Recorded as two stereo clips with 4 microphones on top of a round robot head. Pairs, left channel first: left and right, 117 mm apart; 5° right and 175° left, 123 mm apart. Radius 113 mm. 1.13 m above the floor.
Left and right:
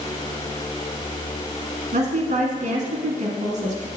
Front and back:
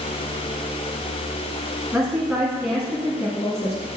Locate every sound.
1.9 s a woman speaking: 115° right, 1.3 m